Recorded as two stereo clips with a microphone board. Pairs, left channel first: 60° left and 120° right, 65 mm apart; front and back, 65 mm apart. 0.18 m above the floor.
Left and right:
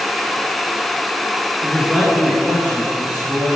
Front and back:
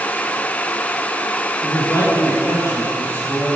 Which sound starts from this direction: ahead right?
A man speaking, at 1.6 s.